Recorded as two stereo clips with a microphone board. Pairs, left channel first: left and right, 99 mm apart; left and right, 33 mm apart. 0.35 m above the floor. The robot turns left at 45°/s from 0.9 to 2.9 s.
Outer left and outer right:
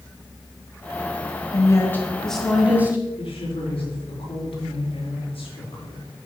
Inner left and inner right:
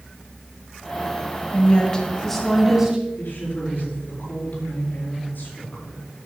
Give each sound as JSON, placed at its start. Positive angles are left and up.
{"t": 1.5, "sound": "a woman speaking", "azimuth_deg": 40, "distance_m": 2.5}
{"t": 3.2, "sound": "a woman speaking", "side_deg": 65, "distance_m": 5.0}